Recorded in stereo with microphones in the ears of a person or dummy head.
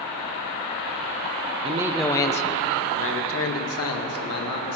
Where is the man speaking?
30° right (ahead or behind), 0.7 m; by 4.8 s 75° left (ahead or behind), 3 m.